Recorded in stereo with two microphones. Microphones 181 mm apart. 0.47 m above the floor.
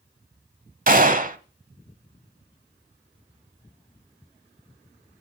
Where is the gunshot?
45° right (ahead or behind), 1.0 m.